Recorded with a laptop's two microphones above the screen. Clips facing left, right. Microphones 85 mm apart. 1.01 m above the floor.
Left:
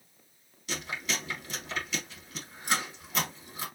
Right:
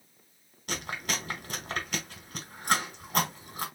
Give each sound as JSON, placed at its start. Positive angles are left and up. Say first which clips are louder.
{"t": 0.7, "sound": "chewing", "louder": "right 1 dB", "side_deg": -60, "distance_m": 2.0}